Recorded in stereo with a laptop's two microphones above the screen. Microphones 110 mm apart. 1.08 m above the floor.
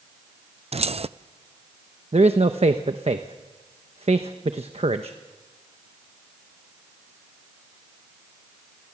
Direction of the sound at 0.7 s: 70° right (ahead or behind).